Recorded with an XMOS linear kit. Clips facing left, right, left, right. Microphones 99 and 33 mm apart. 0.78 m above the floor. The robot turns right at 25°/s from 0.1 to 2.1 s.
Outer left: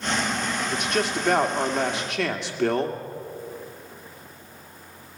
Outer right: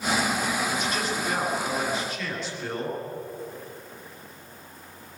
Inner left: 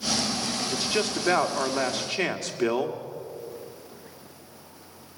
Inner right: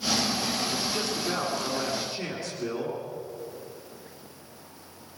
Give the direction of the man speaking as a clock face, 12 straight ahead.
10 o'clock.